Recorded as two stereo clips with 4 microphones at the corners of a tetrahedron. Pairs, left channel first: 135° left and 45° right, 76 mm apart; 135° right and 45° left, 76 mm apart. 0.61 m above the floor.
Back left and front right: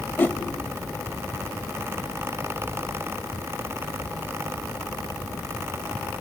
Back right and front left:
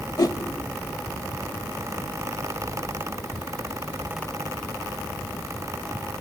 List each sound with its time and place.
0.2 s a whoosh: 165° right, 0.8 m